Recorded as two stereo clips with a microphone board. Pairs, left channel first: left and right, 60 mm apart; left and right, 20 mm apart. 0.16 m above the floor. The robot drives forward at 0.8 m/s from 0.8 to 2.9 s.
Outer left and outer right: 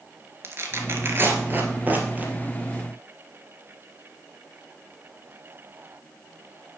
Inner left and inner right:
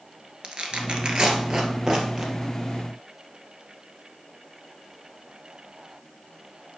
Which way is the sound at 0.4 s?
45° right (ahead or behind).